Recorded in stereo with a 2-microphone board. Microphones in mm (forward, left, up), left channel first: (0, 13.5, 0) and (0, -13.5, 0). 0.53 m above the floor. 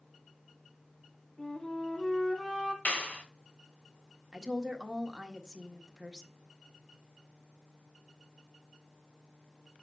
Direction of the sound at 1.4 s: 25° left (ahead or behind).